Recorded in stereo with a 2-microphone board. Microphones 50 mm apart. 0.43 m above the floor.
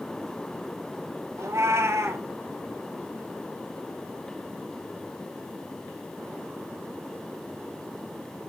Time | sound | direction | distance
1.4 | a cat meowing | 65° right (ahead or behind) | 0.8 m